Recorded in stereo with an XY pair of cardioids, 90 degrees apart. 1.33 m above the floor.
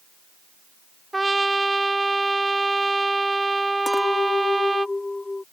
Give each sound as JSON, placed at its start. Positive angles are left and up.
{"t": 1.1, "sound": "a trumpet", "azimuth_deg": -20}
{"t": 3.9, "sound": "a clink", "azimuth_deg": 20}